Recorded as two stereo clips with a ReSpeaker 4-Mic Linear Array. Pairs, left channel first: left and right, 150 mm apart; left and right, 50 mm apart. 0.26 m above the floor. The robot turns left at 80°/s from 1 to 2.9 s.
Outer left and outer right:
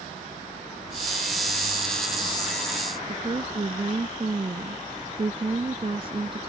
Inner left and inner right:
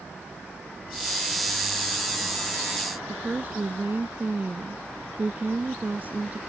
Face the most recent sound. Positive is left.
turn(degrees=-40)  # may be behind; listen again after turning